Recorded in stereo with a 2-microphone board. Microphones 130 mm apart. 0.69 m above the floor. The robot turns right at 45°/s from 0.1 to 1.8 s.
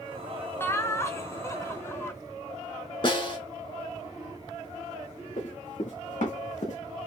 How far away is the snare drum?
About 2 m.